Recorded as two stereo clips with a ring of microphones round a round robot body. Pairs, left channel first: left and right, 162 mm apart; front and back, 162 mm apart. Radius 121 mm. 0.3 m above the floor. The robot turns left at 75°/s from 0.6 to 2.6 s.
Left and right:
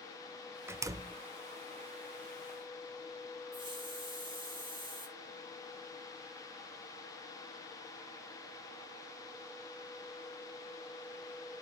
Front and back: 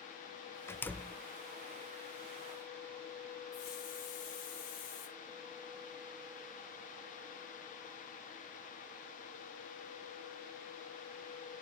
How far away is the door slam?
About 0.6 m.